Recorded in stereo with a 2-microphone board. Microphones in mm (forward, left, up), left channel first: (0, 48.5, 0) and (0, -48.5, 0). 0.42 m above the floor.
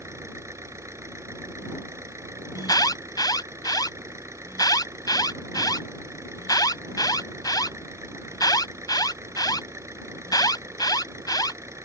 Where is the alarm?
40° left (ahead or behind).